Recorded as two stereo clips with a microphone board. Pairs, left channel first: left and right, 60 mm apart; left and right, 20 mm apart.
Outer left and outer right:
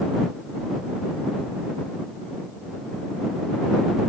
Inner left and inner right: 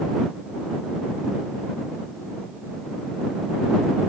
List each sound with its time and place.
Only background noise.